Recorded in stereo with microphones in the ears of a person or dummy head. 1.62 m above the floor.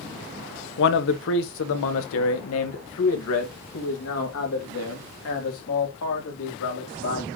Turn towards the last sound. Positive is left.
turn(degrees=80)